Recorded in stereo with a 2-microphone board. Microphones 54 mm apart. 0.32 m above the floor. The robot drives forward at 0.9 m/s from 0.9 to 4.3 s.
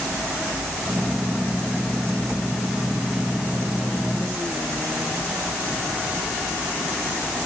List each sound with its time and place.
Only background noise.